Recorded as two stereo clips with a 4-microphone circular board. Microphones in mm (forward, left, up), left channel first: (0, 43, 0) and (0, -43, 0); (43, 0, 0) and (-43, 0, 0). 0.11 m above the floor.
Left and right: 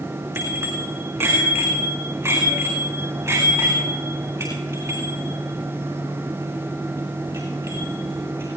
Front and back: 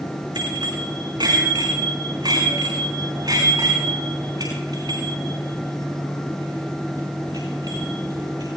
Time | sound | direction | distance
0.3 | a bicycle bell | 150° right | 5.5 m